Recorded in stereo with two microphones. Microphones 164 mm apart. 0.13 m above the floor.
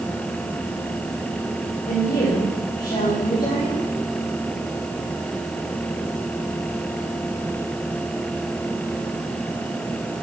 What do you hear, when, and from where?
1.9 s a woman speaking: 45° left (ahead or behind), 8.5 m